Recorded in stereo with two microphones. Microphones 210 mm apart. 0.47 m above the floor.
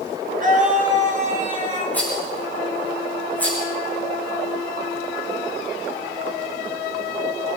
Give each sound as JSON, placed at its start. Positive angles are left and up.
{"t": 0.4, "sound": "a scream", "side_deg": -40, "distance_m": 6.5}
{"t": 1.9, "sound": "a rattle", "side_deg": 10, "distance_m": 7.5}